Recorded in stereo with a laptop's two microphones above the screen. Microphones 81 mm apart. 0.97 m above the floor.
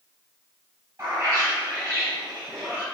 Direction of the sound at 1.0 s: 30° right (ahead or behind).